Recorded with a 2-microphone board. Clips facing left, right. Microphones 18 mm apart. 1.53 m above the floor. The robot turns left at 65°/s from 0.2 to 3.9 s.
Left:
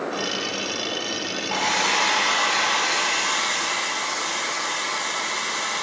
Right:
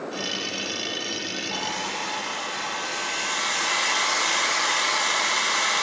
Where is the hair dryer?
135° left, 0.9 m; by 5.8 s 20° right, 0.9 m.